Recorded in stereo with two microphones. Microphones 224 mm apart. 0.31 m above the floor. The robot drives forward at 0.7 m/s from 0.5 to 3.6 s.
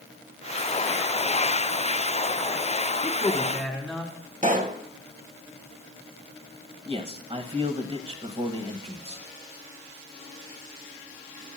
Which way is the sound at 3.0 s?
Centre (ahead or behind).